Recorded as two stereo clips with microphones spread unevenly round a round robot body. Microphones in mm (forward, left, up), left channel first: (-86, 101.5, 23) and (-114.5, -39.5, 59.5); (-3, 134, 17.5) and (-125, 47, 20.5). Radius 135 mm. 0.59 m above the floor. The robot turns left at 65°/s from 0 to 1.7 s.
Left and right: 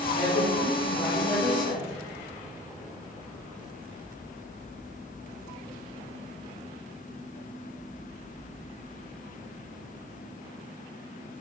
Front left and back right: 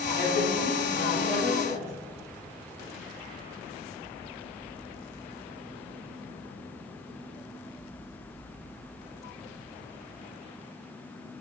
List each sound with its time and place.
0.1 s a woman speaking: 60° left, 1.6 m; by 1.9 s 45° right, 1.6 m